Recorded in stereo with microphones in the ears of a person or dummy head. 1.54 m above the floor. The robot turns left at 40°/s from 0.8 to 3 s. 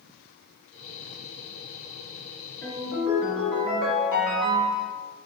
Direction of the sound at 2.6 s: Centre (ahead or behind).